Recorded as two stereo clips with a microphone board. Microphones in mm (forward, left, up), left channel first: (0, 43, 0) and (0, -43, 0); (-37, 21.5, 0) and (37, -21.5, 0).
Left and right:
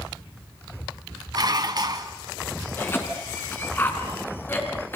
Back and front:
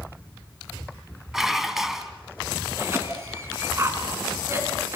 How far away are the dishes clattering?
About 1.7 m.